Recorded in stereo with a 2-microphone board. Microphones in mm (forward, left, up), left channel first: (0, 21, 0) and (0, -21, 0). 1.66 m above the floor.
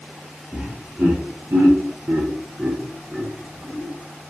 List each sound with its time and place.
0.5 s laughter: 40° right (ahead or behind), 0.9 m; by 3.9 s 25° right (ahead or behind), 1.2 m